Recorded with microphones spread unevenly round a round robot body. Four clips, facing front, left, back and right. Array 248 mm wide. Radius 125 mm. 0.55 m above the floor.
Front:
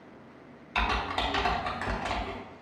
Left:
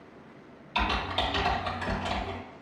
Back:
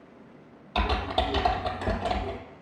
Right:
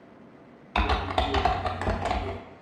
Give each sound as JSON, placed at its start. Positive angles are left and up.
{"t": 0.8, "sound": "typing on a keyboard", "azimuth_deg": -125, "distance_m": 0.5}